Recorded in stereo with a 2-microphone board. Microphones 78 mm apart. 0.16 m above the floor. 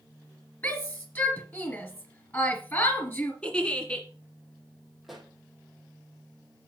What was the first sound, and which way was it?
A shout, 25° left (ahead or behind).